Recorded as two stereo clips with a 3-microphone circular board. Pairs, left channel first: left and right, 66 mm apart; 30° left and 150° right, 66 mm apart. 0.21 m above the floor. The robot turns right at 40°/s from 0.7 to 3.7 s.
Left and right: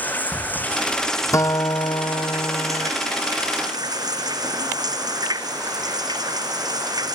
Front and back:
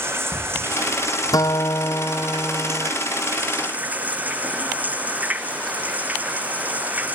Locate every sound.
0.0 s running water: 155° left; by 7.2 s 85° right
1.3 s a guitar: 55° left; by 2.9 s 115° left